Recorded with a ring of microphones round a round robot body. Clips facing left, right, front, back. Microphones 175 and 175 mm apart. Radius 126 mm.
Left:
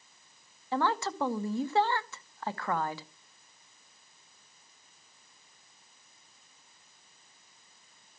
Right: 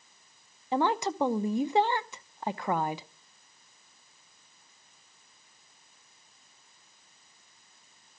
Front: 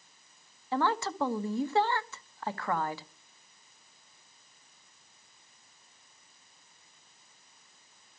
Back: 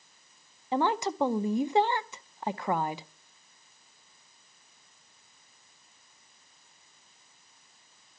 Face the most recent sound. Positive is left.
turn(degrees=-135)